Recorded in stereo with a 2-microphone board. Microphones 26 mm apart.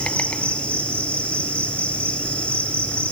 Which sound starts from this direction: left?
An insect, at 0.0 s.